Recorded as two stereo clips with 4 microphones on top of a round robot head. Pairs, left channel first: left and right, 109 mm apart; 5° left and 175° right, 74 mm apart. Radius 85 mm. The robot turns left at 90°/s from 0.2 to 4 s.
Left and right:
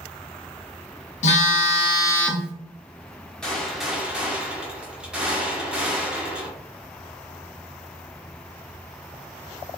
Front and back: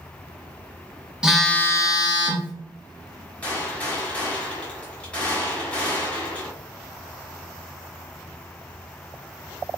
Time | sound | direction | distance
1.2 | a phone buzzing | 105° left | 0.6 m
3.4 | a gunshot | 25° left | 1.1 m